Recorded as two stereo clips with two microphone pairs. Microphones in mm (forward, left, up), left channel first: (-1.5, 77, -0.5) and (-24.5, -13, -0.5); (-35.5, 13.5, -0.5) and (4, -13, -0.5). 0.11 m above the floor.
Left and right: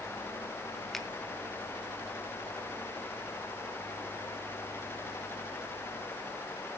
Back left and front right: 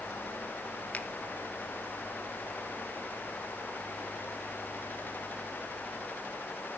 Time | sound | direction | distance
0.9 | a finger snap | 155° left | 1.0 m